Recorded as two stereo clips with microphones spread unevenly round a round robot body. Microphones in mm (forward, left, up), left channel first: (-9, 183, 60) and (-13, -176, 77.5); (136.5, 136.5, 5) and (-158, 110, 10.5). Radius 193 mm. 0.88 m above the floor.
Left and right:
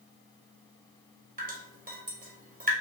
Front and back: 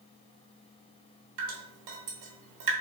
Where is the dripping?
160° right, 1.1 m.